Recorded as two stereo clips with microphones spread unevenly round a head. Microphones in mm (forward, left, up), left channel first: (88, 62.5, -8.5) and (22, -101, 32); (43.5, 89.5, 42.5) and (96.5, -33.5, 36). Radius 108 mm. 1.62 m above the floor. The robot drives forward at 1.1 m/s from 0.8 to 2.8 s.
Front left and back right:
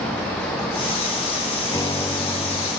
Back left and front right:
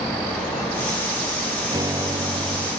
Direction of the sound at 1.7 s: 5° right.